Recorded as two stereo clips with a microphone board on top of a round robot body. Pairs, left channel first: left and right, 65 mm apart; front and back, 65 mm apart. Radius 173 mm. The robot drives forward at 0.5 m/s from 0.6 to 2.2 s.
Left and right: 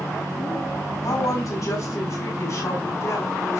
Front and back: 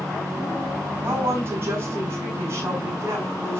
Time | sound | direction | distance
1.0 | a woman speaking | 125° left | 5.5 m